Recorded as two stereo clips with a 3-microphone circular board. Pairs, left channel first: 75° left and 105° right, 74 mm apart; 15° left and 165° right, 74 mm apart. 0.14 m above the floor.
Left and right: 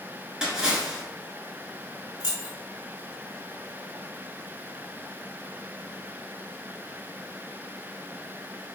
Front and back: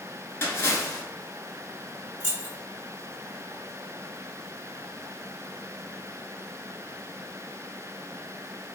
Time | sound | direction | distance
0.4 | a splash | 25° right | 0.8 m
2.2 | keys jangling | 30° right | 1.5 m